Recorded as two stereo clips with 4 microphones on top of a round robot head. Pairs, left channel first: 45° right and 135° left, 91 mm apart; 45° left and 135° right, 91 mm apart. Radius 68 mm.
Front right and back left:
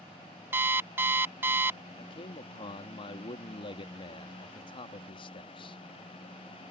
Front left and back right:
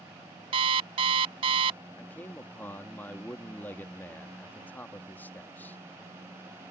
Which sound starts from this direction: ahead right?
A man speaking, at 2.0 s.